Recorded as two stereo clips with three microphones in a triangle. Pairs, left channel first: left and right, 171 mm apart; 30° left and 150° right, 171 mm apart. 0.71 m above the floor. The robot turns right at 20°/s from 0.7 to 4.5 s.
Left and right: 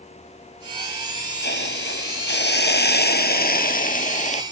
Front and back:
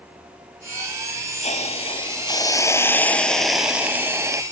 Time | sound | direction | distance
1.4 | a hiss | 80° left | ?